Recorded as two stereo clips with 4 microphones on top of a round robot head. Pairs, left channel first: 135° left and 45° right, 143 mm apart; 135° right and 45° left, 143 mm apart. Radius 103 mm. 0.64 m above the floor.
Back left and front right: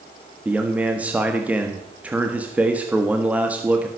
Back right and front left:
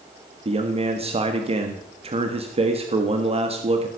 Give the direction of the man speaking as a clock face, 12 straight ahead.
11 o'clock.